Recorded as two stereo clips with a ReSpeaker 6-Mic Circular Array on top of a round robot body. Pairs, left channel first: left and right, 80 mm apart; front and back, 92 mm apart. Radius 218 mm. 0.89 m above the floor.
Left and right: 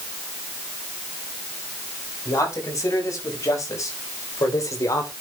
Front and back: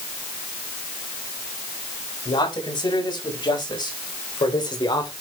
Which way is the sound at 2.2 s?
40° left.